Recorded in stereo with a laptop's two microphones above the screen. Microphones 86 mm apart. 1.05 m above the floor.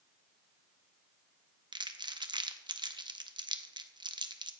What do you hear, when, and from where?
1.7 s crumpling: 60° right (ahead or behind), 0.6 m